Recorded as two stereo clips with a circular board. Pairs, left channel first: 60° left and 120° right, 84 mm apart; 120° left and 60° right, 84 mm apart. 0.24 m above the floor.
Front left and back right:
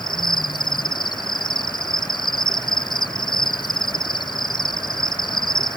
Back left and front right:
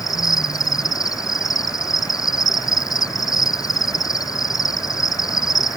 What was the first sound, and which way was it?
An insect, 80° left.